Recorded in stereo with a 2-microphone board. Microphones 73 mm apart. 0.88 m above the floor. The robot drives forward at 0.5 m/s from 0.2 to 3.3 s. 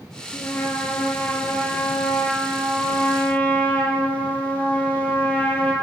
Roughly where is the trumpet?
Left.